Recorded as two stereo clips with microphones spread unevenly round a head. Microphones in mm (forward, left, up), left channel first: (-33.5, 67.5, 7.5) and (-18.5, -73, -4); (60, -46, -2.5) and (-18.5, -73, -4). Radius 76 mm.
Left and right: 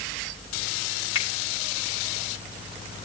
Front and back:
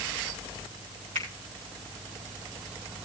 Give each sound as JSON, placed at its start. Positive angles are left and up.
{"t": 1.1, "sound": "a finger snap", "azimuth_deg": 150, "distance_m": 5.5}